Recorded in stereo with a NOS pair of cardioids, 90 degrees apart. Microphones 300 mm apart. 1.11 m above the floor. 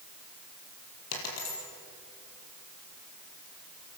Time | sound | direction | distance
1.1 | a dropped coin | 60° left | 6 m